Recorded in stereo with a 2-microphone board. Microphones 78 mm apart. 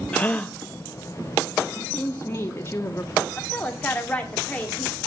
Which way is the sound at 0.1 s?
20° left (ahead or behind).